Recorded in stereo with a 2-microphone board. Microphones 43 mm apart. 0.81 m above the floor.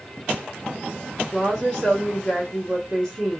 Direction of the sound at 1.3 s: 25° left (ahead or behind).